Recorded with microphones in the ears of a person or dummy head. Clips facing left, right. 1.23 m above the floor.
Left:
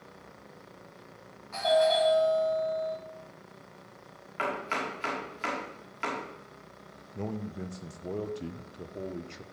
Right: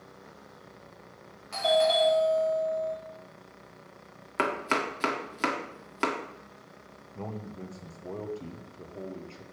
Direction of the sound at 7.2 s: 20° left (ahead or behind).